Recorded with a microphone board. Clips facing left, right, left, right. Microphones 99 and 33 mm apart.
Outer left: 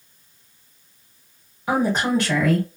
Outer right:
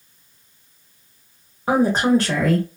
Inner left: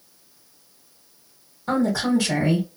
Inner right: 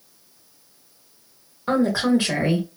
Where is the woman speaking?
40° right (ahead or behind), 1.1 m.